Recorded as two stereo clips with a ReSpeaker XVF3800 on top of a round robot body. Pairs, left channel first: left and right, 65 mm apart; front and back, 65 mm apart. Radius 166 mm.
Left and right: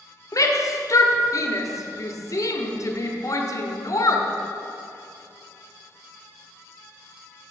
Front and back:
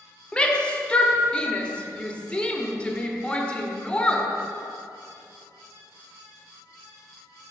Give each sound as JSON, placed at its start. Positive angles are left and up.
{"t": 0.3, "sound": "a shout", "azimuth_deg": 70, "distance_m": 1.4}